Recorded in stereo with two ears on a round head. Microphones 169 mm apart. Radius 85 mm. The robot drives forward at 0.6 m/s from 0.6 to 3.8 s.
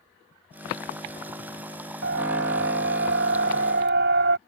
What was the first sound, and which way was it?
A siren, 60° right (ahead or behind).